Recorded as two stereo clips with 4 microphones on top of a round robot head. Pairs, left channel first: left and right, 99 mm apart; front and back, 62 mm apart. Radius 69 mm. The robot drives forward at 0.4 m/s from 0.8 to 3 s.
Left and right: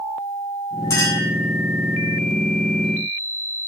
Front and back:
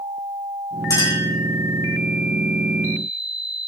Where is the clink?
25° left, 4.5 m.